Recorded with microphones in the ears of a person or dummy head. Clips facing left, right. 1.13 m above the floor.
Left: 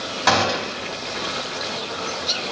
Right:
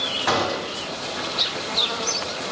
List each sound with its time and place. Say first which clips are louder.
0.3 s a gunshot: left 3 dB; 75° left (ahead or behind), 2.5 m